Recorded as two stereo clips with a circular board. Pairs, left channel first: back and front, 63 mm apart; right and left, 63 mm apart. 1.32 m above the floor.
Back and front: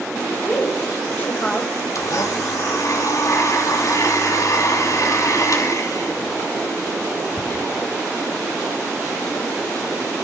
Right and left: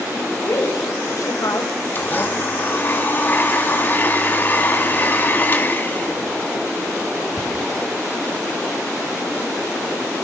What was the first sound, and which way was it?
A woman speaking, 115° right.